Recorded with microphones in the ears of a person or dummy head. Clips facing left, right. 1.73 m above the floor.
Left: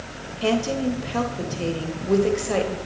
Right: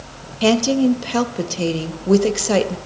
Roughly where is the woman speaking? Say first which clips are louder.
Right 7 dB; right.